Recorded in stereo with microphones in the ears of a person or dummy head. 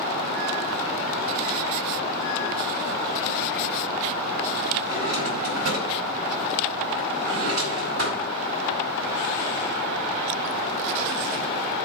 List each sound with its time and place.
4.8 s a drawer: 80° right, 4.5 m